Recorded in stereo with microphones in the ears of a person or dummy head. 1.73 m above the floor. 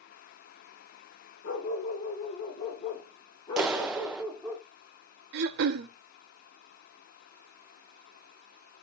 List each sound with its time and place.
1.4 s a dog barking: 45° left (ahead or behind), 3 m; by 4.6 s 5° right (ahead or behind), 1.9 m
3.6 s a clap: centre (ahead or behind), 0.7 m
5.3 s throat clearing: 65° right (ahead or behind), 0.9 m